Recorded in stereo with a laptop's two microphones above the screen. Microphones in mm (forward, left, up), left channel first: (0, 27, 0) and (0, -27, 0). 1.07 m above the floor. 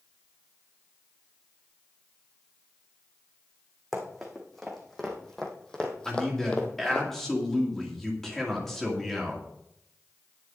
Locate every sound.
3.9 s running footsteps: centre (ahead or behind), 3 m; by 7.0 s 25° left (ahead or behind), 1.5 m
6.0 s a man speaking: 5° left (ahead or behind), 2.5 m